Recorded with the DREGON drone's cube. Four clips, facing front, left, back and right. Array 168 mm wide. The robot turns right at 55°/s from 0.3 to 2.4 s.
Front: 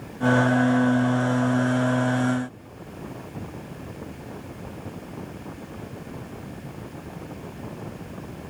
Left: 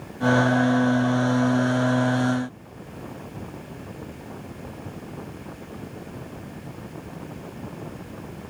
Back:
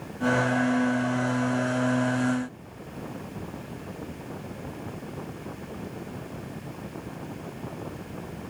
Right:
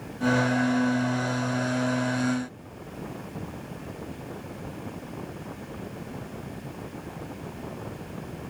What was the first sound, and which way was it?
Only background noise.